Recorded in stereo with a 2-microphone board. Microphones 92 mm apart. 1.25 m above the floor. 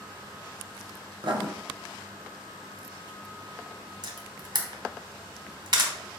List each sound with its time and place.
1.2 s writing: 55° right (ahead or behind), 0.7 m
4.0 s a camera shutter: 50° right (ahead or behind), 0.8 m